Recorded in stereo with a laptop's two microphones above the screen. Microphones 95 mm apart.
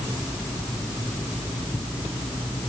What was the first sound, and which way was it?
Only background noise.